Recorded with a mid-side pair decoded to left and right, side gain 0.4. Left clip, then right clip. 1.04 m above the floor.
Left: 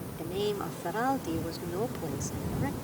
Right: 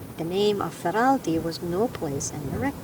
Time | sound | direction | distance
0.2 | a woman speaking | 65° right | ?